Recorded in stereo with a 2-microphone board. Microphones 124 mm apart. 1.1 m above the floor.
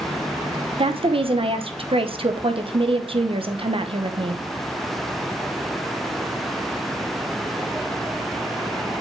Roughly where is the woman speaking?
Right.